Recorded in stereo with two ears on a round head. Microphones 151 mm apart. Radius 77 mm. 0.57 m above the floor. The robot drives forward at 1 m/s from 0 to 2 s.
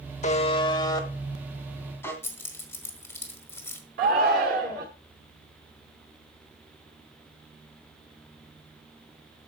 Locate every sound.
0.2 s a buzzer: 45° left (ahead or behind), 0.9 m; by 2.1 s 15° left (ahead or behind), 2.5 m
2.2 s keys jangling: 15° left (ahead or behind), 1.6 m
4.0 s a shout: 55° right (ahead or behind), 1.2 m